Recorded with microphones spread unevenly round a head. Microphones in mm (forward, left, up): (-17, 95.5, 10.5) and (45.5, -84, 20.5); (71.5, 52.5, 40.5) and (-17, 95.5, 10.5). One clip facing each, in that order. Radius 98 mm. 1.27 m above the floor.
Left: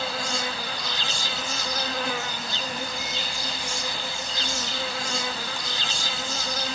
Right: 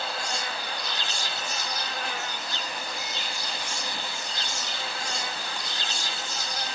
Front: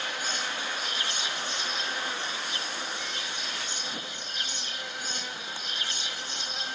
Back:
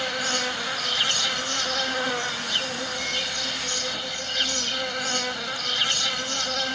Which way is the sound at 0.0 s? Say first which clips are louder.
Left 3 dB, back 6 dB; 135° left.